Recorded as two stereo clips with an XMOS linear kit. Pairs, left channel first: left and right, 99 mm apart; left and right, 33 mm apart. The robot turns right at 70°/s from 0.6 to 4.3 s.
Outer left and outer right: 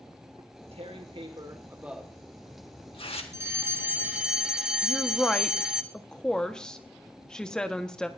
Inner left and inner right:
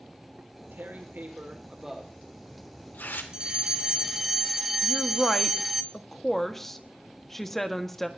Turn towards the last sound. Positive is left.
turn(degrees=5)  # may be behind; listen again after turning